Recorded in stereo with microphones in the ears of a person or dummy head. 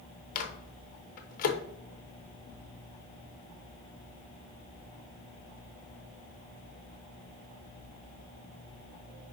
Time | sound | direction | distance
0.3 | a microwave | 50° left (ahead or behind) | 1.0 m